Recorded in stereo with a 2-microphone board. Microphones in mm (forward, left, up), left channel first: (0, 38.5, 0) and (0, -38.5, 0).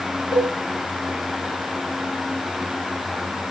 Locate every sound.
0.3 s a cowbell: 85° left, 8 m